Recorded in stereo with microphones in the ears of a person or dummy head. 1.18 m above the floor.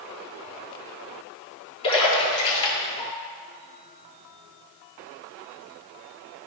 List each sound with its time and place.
1.8 s a splash: 30° left (ahead or behind), 2 m